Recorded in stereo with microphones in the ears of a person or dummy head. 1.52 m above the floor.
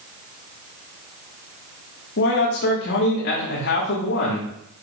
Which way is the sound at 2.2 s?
65° left (ahead or behind).